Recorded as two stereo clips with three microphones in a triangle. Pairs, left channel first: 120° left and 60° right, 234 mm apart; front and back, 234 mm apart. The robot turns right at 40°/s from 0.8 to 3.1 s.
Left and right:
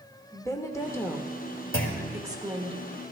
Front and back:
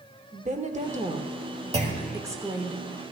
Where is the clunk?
120° left, 1.6 m; by 2.2 s 140° left, 1.6 m.